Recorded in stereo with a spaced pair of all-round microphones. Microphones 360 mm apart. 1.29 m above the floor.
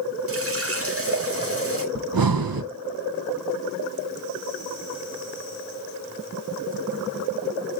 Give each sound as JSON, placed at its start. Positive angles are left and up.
{"t": 0.3, "sound": "a running tap", "side_deg": -40, "distance_m": 1.4}
{"t": 1.9, "sound": "breathing", "side_deg": -70, "distance_m": 0.7}